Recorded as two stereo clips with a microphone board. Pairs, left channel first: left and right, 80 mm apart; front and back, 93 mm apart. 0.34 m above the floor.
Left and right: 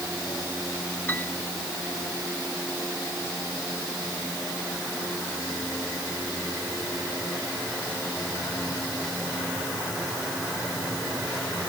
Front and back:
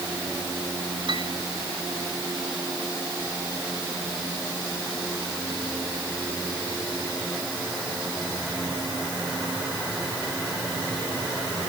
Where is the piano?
155° left.